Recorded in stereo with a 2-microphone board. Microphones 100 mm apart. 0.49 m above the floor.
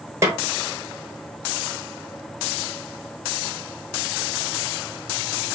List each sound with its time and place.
0.2 s a snare drum: 30° right (ahead or behind), 1.6 m